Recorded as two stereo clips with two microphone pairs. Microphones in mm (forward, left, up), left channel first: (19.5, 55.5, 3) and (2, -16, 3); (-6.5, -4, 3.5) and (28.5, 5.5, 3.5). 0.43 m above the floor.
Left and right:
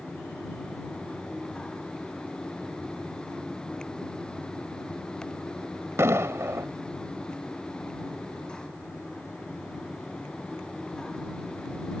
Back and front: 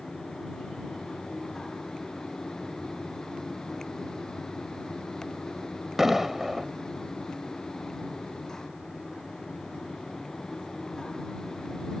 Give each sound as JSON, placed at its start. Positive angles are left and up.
{"t": 6.0, "sound": "an explosion", "azimuth_deg": -65}